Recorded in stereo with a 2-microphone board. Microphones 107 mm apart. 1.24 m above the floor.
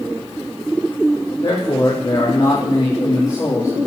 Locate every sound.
1.4 s a man speaking: 50° left (ahead or behind), 3.5 m; by 3.9 s 25° left (ahead or behind), 2.5 m